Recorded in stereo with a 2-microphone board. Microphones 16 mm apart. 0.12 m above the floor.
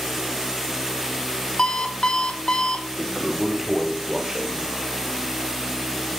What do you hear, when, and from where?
1.6 s an alarm clock: 60° left (ahead or behind), 2 m
3.0 s a toilet flushing: 25° right (ahead or behind), 4.5 m